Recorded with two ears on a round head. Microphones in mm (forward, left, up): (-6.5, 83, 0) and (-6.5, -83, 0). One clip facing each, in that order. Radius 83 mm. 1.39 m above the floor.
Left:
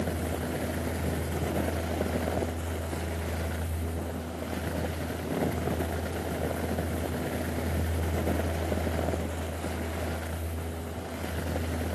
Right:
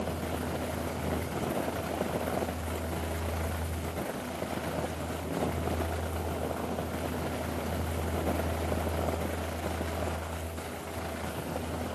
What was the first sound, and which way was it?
Only background noise.